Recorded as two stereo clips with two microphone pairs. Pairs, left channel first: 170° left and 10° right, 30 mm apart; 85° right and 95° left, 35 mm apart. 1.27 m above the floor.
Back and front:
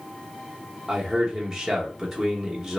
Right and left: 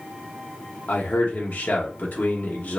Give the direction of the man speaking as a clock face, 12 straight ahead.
3 o'clock.